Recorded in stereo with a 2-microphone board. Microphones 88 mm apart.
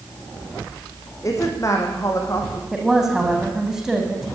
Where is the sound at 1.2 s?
40° left (ahead or behind), 5.5 m.